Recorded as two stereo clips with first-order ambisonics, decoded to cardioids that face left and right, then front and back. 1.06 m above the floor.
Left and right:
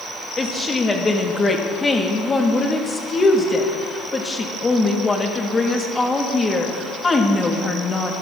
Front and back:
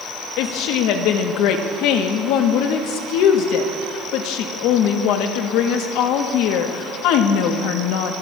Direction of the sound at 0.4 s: 15° left.